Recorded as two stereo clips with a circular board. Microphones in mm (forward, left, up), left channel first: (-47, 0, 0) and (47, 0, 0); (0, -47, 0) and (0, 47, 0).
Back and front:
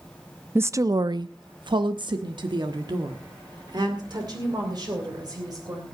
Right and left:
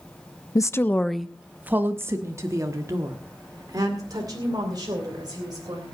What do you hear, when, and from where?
0.6 s a woman speaking: 55° right, 0.5 m; by 5.8 s 45° left, 3.5 m